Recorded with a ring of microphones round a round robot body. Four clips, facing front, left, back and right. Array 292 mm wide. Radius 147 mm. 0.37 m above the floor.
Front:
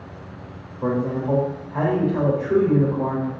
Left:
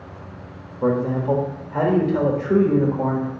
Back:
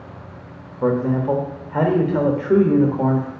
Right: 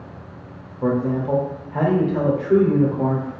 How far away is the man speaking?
About 0.9 m.